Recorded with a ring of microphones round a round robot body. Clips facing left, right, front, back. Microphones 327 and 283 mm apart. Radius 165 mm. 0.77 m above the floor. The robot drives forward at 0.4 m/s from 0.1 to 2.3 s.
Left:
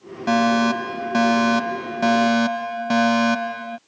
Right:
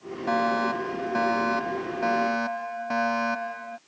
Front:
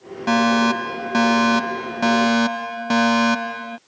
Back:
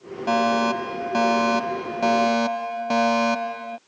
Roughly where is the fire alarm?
Ahead left.